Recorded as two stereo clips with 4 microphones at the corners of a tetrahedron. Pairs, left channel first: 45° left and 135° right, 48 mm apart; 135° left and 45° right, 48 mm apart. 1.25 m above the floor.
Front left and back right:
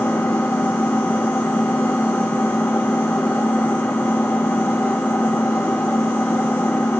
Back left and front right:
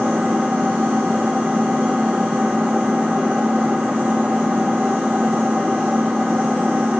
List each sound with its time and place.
0.0 s an engine running: 25° left, 0.8 m